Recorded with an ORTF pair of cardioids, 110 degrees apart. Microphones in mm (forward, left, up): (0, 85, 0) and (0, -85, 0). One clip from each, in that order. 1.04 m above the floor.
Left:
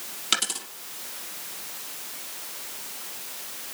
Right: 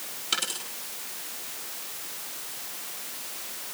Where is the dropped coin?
55° left, 4.5 m.